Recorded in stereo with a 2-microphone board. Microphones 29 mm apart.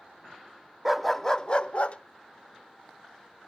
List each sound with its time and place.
0.8 s a dog barking: 5° right (ahead or behind), 0.5 m; by 2.0 s 55° left (ahead or behind), 0.8 m